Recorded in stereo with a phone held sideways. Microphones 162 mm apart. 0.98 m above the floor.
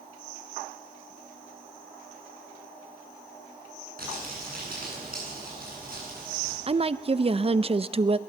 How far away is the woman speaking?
About 0.5 m.